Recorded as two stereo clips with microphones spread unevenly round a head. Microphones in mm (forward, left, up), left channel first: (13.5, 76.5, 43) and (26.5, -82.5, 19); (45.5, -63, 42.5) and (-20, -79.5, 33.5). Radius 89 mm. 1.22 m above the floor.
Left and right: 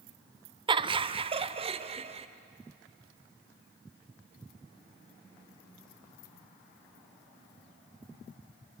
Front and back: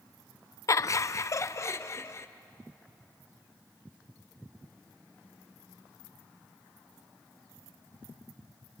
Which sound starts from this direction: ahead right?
Laughter, at 0.7 s.